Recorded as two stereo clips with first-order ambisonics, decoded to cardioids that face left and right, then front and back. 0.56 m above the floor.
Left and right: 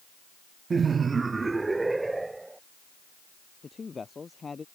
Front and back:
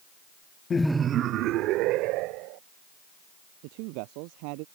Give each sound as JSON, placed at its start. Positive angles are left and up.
{"t": 0.7, "sound": "laughter", "azimuth_deg": -40}
{"t": 3.6, "sound": "a man speaking", "azimuth_deg": 165}